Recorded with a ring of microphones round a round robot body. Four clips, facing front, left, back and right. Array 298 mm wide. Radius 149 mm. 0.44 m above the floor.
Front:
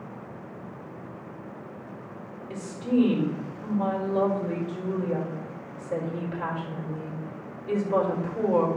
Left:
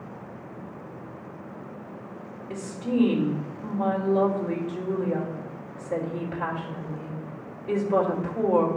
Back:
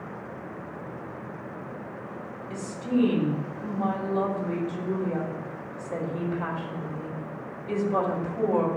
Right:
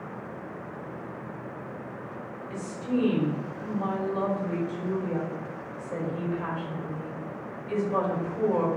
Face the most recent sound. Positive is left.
turn(degrees=60)